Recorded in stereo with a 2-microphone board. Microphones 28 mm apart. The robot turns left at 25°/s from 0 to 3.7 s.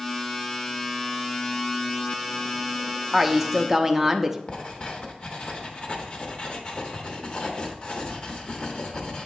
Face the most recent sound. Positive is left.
turn(degrees=40)  # may be behind; listen again after turning